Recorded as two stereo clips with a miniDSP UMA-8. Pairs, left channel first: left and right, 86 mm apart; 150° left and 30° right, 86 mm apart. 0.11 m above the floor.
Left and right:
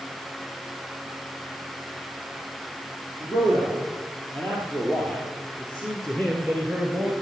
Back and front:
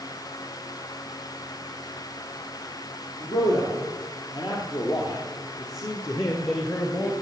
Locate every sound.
3.2 s a man speaking: 150° left, 4.5 m; by 7.1 s 160° right, 1.8 m